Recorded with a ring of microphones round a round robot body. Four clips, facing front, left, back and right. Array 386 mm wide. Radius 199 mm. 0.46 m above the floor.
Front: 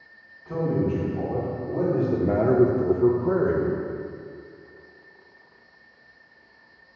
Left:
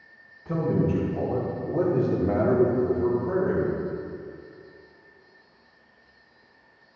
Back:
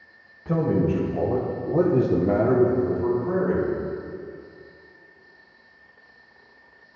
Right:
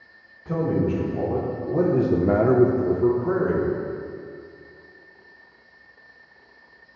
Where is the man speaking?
175° right, 3 m; by 3.7 s 15° right, 2 m.